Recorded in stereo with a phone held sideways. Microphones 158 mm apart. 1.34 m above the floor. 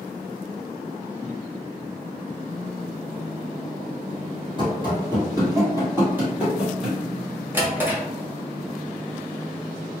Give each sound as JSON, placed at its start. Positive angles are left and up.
{"t": 4.6, "sound": "running footsteps", "side_deg": -30, "distance_m": 1.6}
{"t": 7.5, "sound": "a drawer", "side_deg": -10, "distance_m": 0.9}